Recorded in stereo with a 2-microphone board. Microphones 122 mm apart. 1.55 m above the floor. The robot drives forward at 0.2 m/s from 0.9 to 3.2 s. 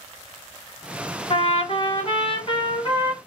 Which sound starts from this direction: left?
A trumpet, at 1.3 s.